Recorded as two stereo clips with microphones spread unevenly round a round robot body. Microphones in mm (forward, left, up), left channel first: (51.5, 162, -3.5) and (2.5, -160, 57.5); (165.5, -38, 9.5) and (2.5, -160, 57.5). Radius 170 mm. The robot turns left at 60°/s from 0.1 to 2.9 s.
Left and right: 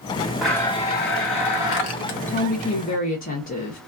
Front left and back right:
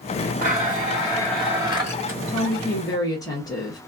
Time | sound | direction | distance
0.4 | a blender | straight behind | 0.7 m
2.3 | a woman speaking | 110° left | 0.8 m